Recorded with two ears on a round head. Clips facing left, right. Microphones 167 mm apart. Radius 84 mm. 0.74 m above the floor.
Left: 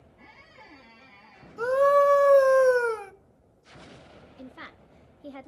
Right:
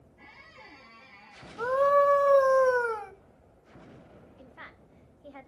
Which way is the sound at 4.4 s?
50° left (ahead or behind).